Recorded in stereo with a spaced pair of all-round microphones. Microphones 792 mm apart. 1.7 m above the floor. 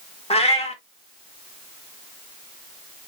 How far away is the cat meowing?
About 1.1 m.